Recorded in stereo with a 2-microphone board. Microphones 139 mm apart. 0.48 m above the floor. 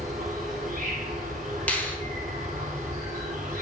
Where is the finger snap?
10° left (ahead or behind), 0.7 m.